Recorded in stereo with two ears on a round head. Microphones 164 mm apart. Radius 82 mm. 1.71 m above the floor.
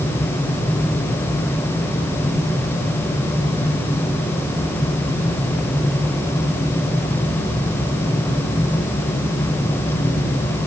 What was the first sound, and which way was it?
Only background noise.